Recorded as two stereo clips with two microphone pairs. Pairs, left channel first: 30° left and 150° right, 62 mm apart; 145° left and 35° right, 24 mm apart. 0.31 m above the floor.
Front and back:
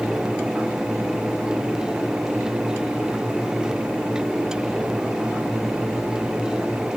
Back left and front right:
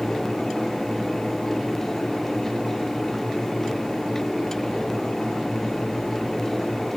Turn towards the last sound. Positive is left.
No sound to turn to.